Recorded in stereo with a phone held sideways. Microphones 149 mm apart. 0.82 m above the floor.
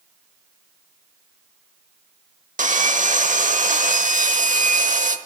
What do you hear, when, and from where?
2.6 s sawing: 65° right (ahead or behind), 1.1 m